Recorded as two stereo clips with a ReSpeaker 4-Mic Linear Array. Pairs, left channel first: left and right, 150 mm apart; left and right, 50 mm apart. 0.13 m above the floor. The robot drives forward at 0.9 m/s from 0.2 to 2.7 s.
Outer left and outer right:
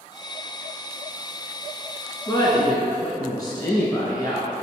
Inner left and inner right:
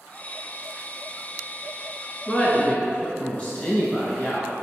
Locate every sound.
2.3 s a woman speaking: 30° left (ahead or behind), 1.3 m; by 4.5 s 25° left (ahead or behind), 1.4 m